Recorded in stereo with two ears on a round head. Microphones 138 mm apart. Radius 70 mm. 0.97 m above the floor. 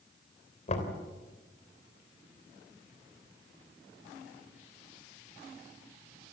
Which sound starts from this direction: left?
Knocking, at 0.7 s.